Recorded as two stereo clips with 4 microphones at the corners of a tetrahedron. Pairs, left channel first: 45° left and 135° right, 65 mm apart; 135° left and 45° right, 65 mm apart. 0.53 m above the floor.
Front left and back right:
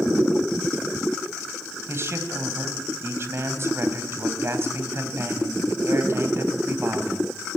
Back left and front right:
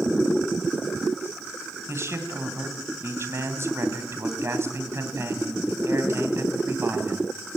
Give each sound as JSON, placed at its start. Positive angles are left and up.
{"t": 1.9, "sound": "a man speaking", "azimuth_deg": -90, "distance_m": 3.0}